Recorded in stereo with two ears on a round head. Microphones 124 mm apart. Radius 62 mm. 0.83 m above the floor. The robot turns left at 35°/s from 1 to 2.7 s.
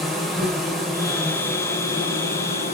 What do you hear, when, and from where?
0.0 s an insect: straight behind, 0.8 m; by 2.8 s 120° left, 0.8 m